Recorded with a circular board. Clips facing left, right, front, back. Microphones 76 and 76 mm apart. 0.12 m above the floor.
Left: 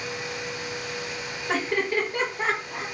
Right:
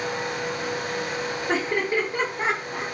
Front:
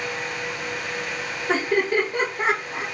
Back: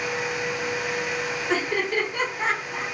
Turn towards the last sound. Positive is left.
turn(degrees=-45)